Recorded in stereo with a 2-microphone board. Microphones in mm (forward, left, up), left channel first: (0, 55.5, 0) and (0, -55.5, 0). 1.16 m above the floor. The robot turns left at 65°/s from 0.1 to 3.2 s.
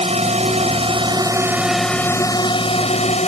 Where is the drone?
70° right; by 3.3 s 90° left.